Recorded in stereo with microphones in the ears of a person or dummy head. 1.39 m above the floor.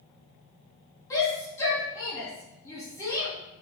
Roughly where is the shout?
Centre.